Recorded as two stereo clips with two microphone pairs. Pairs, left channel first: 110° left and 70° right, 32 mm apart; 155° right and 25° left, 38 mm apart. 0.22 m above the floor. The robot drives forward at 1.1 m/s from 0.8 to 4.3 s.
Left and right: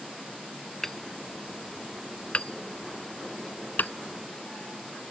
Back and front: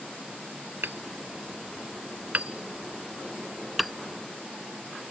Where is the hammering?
35° left; by 3.9 s 115° left.